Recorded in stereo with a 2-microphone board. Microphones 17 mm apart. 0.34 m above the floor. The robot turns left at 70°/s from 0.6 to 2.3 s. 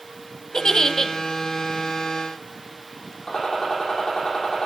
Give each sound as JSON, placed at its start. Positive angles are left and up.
{"t": 0.5, "sound": "a giggle", "azimuth_deg": 80, "distance_m": 0.9}
{"t": 3.3, "sound": "a gunshot", "side_deg": 65, "distance_m": 4.5}